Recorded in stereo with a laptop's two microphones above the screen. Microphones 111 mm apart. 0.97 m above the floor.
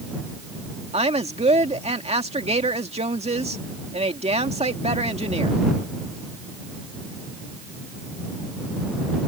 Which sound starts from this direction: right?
A woman speaking, at 0.9 s.